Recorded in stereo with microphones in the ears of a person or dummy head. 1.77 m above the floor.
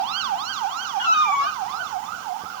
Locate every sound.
1.0 s a cat meowing: 15° right (ahead or behind), 1.0 m